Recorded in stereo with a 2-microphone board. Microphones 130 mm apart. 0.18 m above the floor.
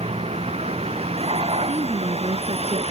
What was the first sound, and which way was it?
A vehicle, 55° right (ahead or behind).